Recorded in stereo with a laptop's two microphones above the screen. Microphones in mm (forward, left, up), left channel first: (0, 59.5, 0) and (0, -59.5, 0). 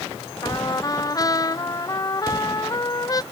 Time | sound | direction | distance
0.4 | a trumpet | 30° left (ahead or behind) | ?